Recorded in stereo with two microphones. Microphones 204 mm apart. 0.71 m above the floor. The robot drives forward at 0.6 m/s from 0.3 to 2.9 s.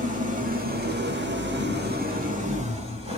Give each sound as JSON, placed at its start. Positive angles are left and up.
{"t": 0.0, "sound": "an engine running", "side_deg": -40, "distance_m": 0.9}